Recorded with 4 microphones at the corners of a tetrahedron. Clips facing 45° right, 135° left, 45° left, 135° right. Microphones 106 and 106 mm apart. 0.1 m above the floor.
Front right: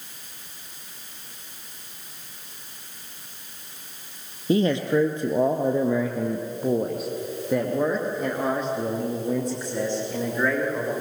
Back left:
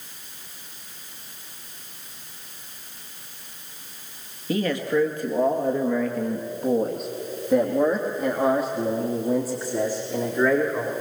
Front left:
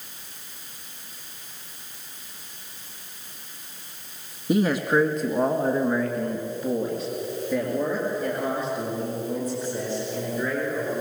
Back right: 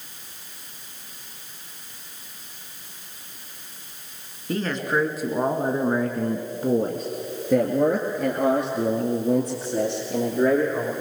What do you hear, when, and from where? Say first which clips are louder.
4.5 s a man speaking: front right 3 dB, front left 4 dB; 15° right, 1.4 m; by 10.9 s 145° right, 4.5 m